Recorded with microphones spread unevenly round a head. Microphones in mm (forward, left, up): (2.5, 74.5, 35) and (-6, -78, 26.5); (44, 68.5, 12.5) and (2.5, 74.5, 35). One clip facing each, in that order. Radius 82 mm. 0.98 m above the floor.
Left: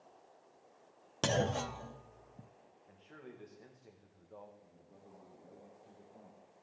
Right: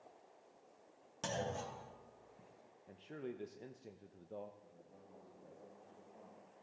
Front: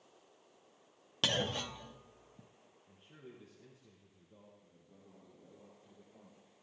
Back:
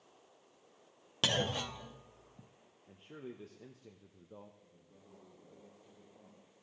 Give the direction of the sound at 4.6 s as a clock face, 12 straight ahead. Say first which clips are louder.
Left 1 dB, even; 12 o'clock.